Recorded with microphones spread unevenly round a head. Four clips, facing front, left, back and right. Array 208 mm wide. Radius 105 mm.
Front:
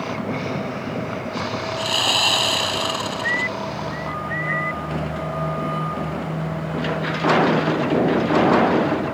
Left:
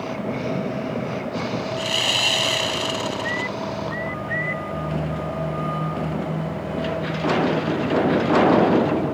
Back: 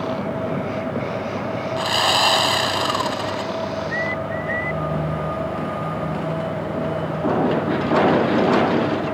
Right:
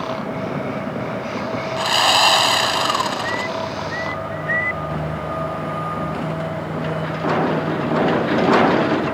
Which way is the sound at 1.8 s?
95° right.